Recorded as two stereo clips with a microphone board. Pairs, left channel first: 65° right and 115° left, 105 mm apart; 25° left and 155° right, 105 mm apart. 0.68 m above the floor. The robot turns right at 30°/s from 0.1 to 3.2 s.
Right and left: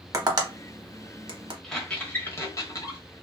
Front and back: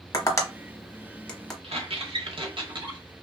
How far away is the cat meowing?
I don't hear a cat meowing.